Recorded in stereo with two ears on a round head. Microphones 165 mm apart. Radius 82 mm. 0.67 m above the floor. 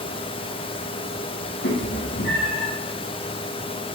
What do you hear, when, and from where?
1.6 s a cat meowing: 70° left (ahead or behind), 2.5 m; by 2.7 s 75° left (ahead or behind), 2.5 m